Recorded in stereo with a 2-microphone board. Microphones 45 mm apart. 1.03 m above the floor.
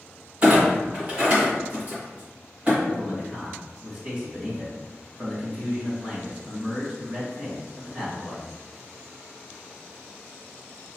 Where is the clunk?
30° right (ahead or behind), 1.8 m.